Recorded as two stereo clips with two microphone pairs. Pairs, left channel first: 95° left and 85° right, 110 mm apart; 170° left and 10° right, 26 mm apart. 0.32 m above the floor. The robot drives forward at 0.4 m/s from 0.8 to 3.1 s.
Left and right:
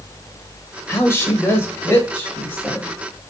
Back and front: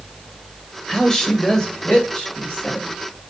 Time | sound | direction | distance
0.9 | a woman speaking | 130° left | 1.2 m